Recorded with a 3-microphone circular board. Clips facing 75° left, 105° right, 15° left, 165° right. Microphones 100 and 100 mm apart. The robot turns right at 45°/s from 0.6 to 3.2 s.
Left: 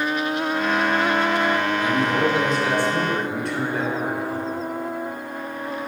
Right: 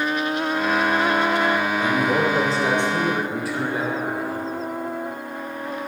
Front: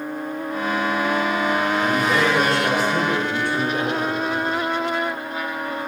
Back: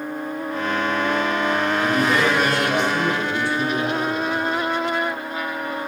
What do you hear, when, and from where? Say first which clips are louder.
1.8 s a man speaking: even, even; 80° right, 7 m; by 4.6 s 20° right, 7 m